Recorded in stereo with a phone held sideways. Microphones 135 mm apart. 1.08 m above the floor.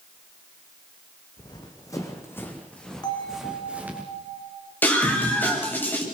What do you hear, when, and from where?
1.4 s running footsteps: 35° left (ahead or behind), 3.5 m; by 4.0 s 15° right (ahead or behind), 4 m
3.0 s a bell: 30° left (ahead or behind), 2.5 m
4.8 s a scream: 15° left (ahead or behind), 7.5 m